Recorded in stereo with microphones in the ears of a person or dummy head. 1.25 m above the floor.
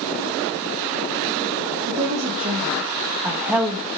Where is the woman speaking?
45° right (ahead or behind), 2 m; by 3.9 s 5° left (ahead or behind), 1.2 m.